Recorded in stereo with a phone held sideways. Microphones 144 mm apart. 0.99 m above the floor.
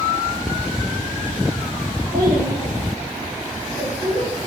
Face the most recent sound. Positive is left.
turn(degrees=-70)  # may be behind; listen again after turning